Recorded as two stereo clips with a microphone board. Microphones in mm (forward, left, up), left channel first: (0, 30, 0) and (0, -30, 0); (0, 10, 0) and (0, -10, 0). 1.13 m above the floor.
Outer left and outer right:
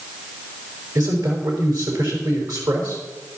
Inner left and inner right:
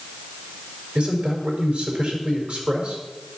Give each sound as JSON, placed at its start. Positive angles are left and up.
{"t": 0.9, "sound": "a man speaking", "side_deg": -80, "distance_m": 5.0}